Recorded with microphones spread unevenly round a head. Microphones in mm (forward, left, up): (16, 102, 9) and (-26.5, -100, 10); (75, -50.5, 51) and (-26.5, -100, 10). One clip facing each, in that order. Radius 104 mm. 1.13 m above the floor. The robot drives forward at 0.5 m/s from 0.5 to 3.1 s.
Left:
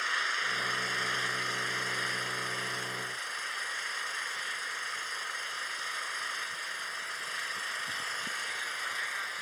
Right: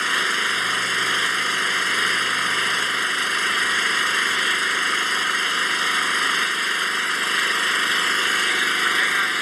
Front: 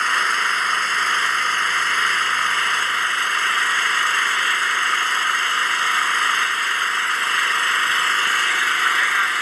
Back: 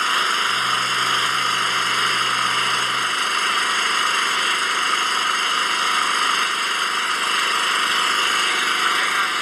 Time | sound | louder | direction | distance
0.0 | an engine running | right 13 dB, even | 85° right | ?